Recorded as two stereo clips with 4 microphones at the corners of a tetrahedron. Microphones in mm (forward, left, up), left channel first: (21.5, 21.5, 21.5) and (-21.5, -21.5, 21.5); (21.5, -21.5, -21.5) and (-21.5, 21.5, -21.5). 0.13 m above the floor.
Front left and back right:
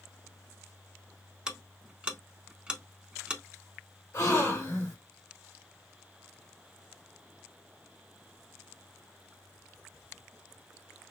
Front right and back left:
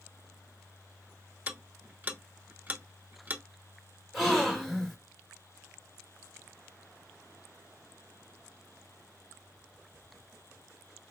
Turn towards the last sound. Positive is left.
turn(degrees=45)